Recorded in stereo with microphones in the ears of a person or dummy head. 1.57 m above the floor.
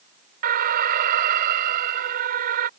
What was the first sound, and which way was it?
An alarm, 55° right (ahead or behind).